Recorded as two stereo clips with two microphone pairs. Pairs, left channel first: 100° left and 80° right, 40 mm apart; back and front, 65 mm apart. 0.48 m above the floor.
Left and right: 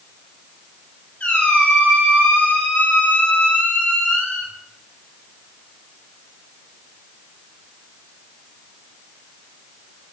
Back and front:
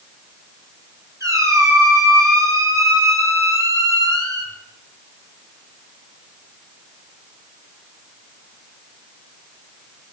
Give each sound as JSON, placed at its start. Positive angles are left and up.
{"t": 1.2, "sound": "a squeak", "azimuth_deg": 40, "distance_m": 2.5}